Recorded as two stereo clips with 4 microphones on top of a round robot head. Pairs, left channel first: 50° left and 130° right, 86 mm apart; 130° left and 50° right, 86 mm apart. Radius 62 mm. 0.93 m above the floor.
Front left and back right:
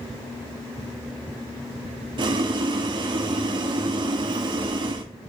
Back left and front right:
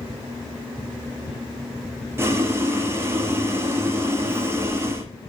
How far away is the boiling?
About 2 m.